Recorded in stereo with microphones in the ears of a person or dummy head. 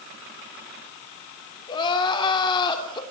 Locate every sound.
1.7 s crying: 30° left (ahead or behind), 3 m